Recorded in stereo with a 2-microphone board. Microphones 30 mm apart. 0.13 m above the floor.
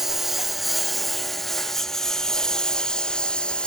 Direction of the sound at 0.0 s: 10° right (ahead or behind).